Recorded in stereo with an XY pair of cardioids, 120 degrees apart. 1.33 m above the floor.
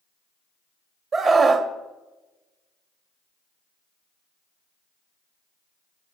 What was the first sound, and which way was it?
A scream, 45° right.